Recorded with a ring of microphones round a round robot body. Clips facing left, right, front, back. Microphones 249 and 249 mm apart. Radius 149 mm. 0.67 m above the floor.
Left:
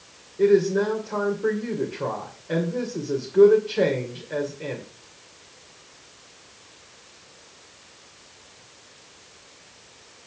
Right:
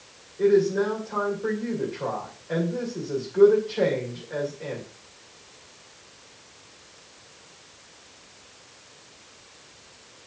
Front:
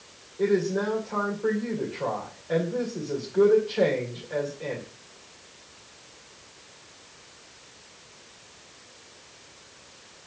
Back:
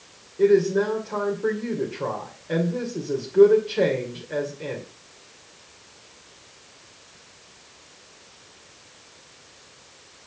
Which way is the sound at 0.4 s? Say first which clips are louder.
Left 1 dB, back 6 dB; 130° left.